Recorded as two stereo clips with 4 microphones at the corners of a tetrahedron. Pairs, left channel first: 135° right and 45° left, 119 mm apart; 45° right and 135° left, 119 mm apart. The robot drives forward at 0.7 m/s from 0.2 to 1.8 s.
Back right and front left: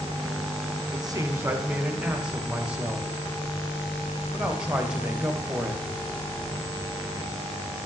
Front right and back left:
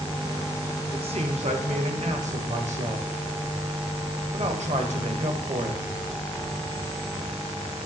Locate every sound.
0.9 s a man speaking: 95° left, 0.9 m; by 5.8 s 125° left, 1.2 m